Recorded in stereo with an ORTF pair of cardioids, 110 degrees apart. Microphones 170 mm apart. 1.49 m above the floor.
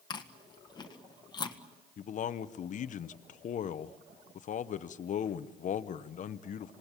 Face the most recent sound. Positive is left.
turn(degrees=45)